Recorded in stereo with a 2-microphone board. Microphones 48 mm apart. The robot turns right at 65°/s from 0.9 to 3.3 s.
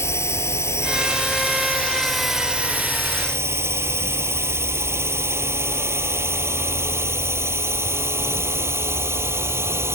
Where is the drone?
75° left (ahead or behind); by 9.9 s 65° right (ahead or behind).